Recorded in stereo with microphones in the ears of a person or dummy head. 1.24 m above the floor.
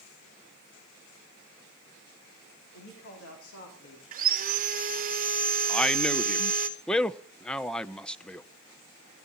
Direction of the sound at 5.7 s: 5° left (ahead or behind).